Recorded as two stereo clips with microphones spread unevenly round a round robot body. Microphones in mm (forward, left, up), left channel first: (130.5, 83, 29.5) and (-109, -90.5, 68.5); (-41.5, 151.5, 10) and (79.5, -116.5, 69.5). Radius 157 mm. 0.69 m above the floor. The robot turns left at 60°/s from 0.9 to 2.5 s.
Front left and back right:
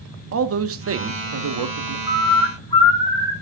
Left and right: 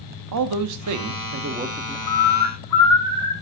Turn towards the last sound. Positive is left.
turn(degrees=110)